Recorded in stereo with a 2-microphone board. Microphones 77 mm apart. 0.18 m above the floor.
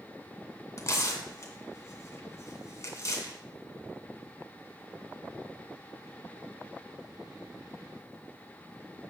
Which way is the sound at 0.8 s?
40° left (ahead or behind).